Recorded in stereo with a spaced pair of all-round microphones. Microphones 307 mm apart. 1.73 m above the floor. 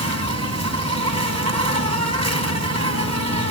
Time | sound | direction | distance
0.0 | an insect | 50° right (ahead or behind) | 4 m